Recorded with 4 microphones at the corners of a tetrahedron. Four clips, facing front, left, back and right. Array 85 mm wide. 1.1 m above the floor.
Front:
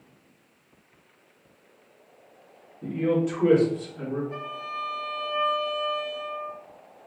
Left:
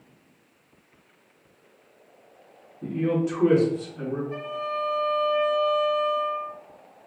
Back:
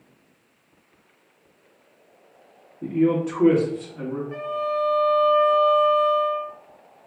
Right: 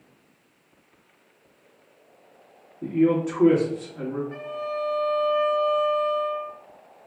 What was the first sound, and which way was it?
A man speaking, 145° right.